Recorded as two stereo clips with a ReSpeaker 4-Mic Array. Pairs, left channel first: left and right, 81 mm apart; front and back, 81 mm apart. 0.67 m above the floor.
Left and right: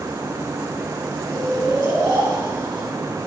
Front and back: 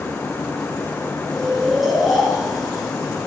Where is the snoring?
95° right, 2.5 m.